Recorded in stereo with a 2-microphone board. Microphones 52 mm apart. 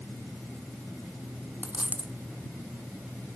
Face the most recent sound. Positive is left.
turn(degrees=-30)  # may be behind; listen again after turning